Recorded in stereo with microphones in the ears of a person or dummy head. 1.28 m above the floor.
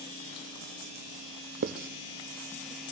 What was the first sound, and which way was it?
Writing, 55° right (ahead or behind).